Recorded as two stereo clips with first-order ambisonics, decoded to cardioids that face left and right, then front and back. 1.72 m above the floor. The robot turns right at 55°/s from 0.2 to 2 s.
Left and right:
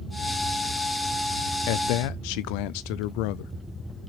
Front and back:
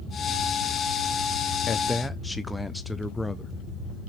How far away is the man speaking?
About 0.5 m.